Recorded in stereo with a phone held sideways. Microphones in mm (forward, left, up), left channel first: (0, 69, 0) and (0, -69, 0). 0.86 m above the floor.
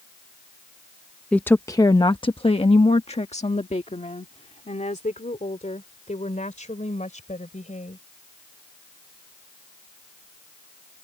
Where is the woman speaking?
5° left (ahead or behind); by 8.0 s 65° left (ahead or behind).